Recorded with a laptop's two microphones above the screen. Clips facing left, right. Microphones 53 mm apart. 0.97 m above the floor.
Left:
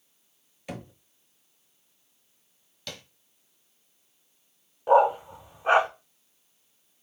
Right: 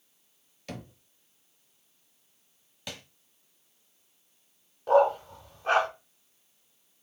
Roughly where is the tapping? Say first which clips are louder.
Even; centre.